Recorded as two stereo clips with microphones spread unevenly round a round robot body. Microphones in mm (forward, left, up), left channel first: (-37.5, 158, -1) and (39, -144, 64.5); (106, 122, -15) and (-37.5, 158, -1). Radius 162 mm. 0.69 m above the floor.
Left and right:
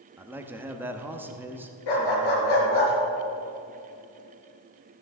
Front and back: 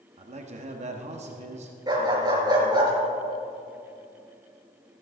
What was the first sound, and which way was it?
A man speaking, 170° right.